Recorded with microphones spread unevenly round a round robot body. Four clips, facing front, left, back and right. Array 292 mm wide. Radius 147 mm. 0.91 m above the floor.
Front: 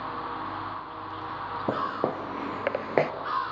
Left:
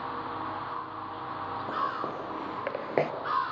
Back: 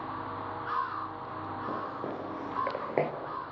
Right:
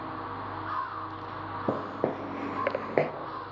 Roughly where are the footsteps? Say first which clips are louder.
Right 3 dB, front 10 dB; ahead right.